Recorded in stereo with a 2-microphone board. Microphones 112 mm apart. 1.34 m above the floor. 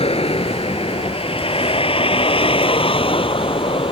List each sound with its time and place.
0.0 s a vehicle: 60° left (ahead or behind); by 3.9 s 55° left (ahead or behind)